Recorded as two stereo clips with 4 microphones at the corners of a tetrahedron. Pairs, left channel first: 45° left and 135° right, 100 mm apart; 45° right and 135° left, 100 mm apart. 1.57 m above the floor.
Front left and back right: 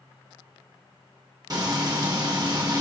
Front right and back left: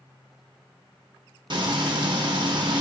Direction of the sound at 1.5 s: 175° left.